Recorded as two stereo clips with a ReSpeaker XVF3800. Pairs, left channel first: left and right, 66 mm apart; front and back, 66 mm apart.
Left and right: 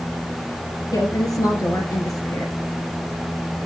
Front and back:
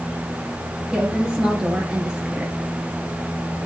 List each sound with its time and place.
0.9 s a woman speaking: 105° left, 3 m